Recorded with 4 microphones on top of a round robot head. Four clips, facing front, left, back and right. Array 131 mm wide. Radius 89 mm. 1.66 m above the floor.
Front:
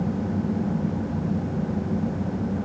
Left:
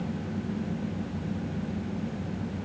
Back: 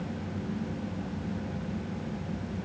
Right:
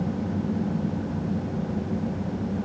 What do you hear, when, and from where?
Only background noise.